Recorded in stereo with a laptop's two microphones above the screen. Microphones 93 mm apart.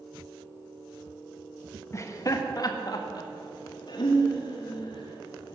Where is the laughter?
30° left (ahead or behind), 1.2 m; by 5.6 s 65° left (ahead or behind), 3 m.